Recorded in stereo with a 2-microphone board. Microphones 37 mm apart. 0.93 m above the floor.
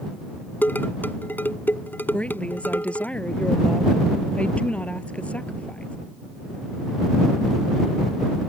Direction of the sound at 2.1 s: 35° left (ahead or behind).